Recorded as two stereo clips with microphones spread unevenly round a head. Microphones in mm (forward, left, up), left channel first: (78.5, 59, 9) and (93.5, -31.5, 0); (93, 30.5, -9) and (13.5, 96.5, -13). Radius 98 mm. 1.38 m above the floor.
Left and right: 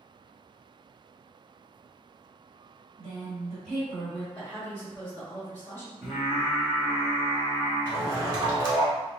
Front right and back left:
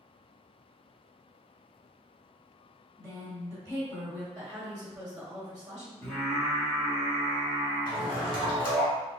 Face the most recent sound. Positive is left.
turn(degrees=-45)